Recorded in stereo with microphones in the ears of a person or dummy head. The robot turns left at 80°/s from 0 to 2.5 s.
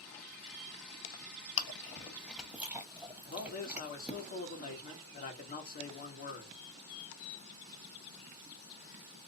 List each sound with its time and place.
1.6 s chewing: 70° left (ahead or behind), 1.0 m; by 4.2 s centre (ahead or behind), 1.0 m
3.2 s a man speaking: 35° left (ahead or behind), 1.3 m